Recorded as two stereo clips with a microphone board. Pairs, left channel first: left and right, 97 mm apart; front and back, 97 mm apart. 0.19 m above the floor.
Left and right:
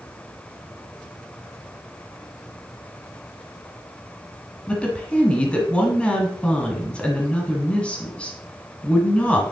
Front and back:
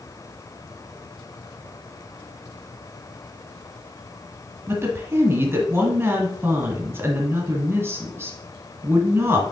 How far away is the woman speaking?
About 1.6 m.